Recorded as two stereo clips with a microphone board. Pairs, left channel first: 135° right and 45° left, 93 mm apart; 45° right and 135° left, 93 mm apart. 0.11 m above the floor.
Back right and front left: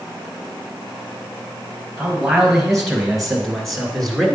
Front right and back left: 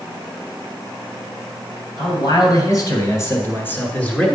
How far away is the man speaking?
About 2.5 m.